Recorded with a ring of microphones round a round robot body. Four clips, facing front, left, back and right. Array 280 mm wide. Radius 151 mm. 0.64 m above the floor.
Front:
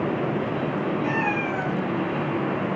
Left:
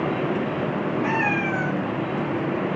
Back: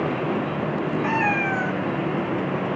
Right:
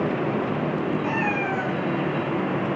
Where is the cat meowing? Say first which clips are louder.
Left 1 dB, back 2 dB; 160° left, 5 m.